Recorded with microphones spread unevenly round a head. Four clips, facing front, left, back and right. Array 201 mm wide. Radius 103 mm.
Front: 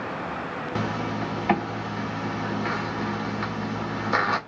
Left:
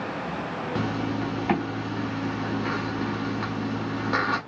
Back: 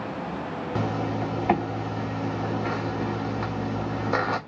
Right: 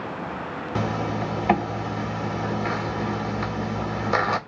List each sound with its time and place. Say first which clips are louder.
0.8 s a zipper: right 2 dB, back 1 dB; 100° right, 1.3 m